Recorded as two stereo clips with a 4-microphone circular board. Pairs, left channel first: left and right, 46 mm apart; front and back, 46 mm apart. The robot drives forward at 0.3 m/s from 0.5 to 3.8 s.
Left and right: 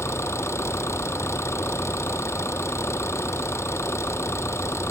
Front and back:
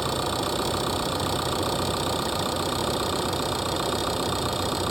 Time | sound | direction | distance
0.0 | an engine running | 85° left | ?